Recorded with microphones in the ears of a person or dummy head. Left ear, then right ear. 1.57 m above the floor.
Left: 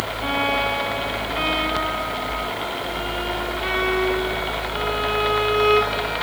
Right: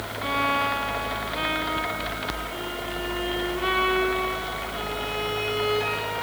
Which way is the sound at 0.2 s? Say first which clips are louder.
Left 2 dB; 15° right (ahead or behind).